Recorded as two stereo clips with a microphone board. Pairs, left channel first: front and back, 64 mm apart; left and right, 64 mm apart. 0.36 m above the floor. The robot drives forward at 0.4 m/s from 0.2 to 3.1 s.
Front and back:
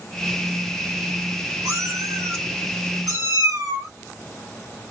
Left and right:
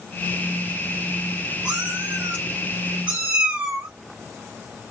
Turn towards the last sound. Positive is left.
turn(degrees=-165)